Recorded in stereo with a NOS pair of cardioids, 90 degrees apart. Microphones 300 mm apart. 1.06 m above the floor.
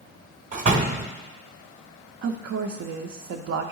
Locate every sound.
0.5 s a door slam: 25° right, 1.0 m
2.2 s a woman speaking: 50° right, 0.6 m